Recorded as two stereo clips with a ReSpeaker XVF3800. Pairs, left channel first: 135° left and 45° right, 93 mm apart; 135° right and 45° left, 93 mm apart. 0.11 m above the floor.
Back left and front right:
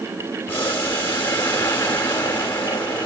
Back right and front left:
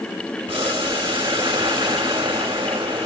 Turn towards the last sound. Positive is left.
turn(degrees=70)